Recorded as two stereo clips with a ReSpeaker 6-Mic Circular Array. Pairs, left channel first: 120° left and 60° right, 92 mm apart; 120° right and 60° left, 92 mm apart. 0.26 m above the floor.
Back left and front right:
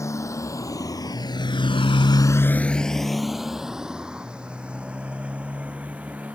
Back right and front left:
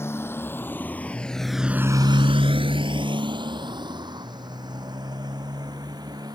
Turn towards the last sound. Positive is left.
turn(degrees=15)